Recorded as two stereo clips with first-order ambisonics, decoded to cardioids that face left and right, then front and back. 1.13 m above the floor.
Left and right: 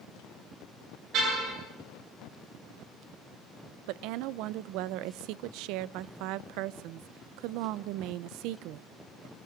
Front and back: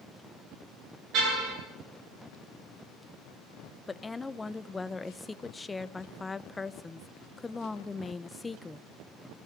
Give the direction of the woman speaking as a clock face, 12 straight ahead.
3 o'clock.